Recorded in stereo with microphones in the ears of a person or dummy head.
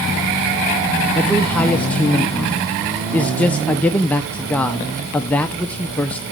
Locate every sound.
1.1 s a man speaking: 10° left (ahead or behind), 0.6 m